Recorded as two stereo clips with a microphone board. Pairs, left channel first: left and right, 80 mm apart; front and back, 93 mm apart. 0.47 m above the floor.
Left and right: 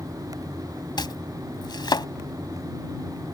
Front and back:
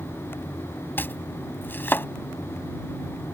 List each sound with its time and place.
1.0 s chopping: 65° left